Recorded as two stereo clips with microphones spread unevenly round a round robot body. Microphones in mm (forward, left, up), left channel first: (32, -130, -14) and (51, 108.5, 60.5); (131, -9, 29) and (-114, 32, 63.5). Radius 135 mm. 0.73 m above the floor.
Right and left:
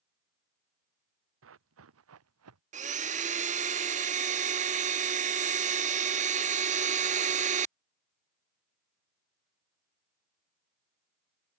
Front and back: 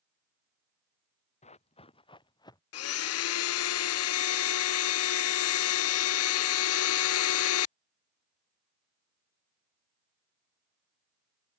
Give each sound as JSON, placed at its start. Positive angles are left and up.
{"t": 1.4, "sound": "running footsteps", "azimuth_deg": 55}
{"t": 2.7, "sound": "a blender", "azimuth_deg": 20}